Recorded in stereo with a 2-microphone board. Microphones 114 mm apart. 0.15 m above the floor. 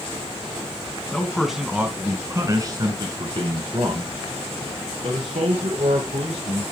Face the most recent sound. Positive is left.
turn(degrees=-70)  # may be behind; listen again after turning